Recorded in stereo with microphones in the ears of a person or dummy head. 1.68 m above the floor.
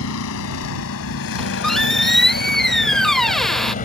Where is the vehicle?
75° left (ahead or behind); by 3.9 s 35° left (ahead or behind).